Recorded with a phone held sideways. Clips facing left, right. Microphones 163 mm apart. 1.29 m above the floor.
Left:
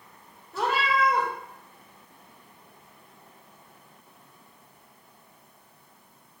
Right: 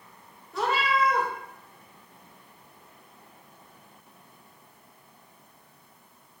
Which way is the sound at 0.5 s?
Centre (ahead or behind).